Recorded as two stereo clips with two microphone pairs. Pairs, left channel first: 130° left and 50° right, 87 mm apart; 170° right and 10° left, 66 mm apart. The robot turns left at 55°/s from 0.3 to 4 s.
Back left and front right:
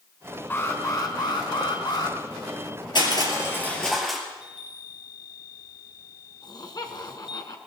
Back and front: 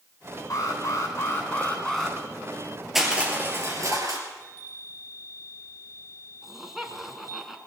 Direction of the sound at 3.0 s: 95° left.